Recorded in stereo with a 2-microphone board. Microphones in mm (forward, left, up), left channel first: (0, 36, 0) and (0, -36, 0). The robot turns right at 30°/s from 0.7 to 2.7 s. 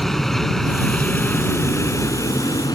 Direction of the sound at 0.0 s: 5° left (ahead or behind).